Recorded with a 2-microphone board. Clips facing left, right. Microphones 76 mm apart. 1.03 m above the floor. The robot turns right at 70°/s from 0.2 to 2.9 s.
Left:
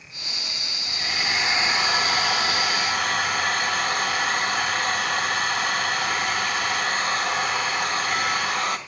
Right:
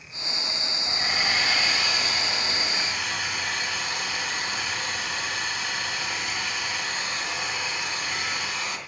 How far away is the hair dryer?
About 2.5 m.